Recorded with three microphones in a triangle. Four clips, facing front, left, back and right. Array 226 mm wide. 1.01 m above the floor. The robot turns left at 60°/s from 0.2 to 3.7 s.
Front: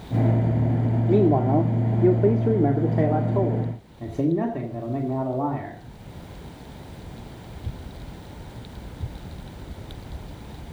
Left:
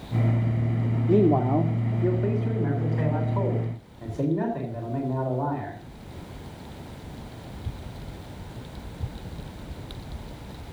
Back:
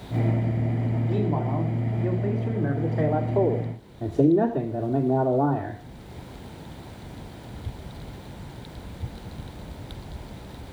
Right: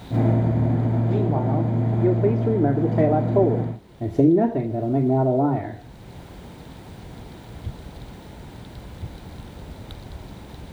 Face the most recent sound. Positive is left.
turn(degrees=-105)